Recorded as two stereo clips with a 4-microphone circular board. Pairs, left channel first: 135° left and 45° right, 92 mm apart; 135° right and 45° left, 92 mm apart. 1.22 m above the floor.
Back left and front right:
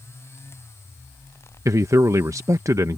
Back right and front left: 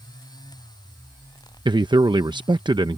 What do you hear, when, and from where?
1.6 s a man speaking: 10° left